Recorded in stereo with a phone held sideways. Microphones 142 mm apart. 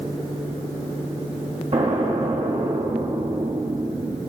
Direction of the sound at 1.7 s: 55° right (ahead or behind).